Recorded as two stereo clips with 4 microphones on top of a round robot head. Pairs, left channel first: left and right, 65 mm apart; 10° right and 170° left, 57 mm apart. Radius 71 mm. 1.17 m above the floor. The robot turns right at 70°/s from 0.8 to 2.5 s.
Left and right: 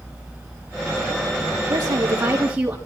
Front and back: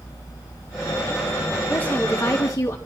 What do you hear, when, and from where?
1.7 s a woman speaking: 75° right, 3.5 m; by 2.8 s 20° right, 3.5 m